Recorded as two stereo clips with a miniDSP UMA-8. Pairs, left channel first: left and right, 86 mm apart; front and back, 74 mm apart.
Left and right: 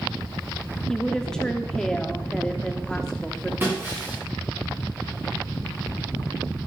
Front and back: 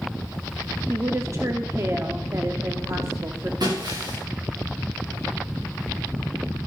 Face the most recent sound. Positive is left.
turn(degrees=-155)